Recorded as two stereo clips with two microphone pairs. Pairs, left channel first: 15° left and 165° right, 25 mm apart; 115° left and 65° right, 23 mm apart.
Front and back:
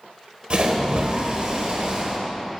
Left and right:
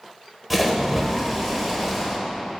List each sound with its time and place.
0.5 s a splash: 150° right, 1.1 m